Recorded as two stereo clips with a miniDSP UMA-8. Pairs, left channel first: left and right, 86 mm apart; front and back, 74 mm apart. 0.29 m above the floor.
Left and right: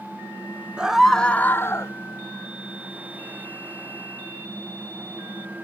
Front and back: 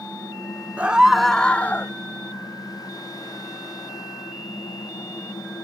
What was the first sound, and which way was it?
A scream, 150° right.